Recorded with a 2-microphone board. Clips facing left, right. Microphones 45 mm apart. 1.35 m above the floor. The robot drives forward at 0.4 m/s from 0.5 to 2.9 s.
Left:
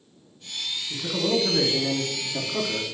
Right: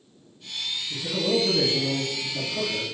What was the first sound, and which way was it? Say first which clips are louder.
A man speaking: even; 35° left (ahead or behind).